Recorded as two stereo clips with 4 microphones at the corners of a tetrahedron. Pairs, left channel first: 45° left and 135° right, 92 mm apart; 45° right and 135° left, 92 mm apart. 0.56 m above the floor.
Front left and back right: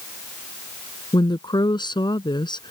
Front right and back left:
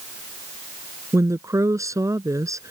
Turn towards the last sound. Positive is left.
turn(degrees=80)